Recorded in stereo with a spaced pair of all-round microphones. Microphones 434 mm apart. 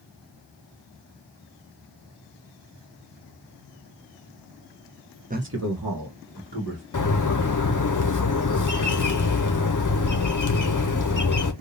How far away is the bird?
About 0.7 m.